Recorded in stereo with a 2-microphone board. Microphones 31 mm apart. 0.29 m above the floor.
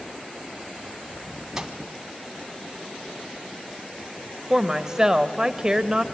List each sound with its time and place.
1.6 s a microwave: 15° right (ahead or behind), 1.5 m
4.5 s a woman speaking: 20° right (ahead or behind), 0.9 m